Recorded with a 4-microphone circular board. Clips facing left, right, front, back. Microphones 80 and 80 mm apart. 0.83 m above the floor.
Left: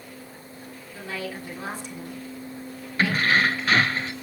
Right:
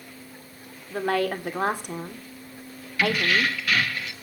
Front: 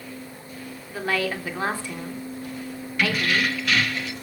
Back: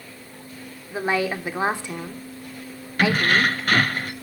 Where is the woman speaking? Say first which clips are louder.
Right 10 dB, back 3 dB; 110° right, 2.5 m.